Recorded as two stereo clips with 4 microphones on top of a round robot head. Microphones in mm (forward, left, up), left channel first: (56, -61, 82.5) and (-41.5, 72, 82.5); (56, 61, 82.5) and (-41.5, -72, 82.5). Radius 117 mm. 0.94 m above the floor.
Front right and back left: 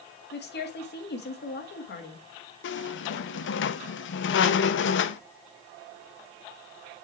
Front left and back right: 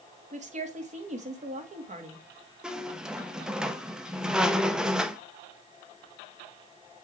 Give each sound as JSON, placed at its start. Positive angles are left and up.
{"t": 0.3, "sound": "a woman speaking", "azimuth_deg": -80, "distance_m": 1.7}
{"t": 2.6, "sound": "a squeak", "azimuth_deg": -40, "distance_m": 0.6}